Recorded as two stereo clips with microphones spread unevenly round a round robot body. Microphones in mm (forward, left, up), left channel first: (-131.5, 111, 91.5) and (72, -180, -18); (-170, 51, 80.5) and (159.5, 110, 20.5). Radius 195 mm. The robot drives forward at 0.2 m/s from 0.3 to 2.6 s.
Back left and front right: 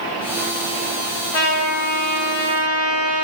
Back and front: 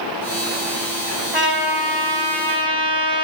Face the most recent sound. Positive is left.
turn(degrees=130)